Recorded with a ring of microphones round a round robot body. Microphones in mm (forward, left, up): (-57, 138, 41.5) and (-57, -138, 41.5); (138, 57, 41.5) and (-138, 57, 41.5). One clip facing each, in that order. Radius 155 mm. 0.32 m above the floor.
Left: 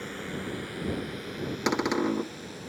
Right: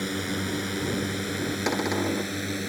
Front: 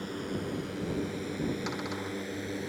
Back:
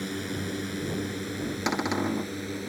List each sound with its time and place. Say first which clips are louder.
0.0 s a drone: right 6 dB, back 2 dB; 120° right; by 2.7 s 100° right
1.7 s a cupboard door: left 2 dB, back 8 dB; 165° left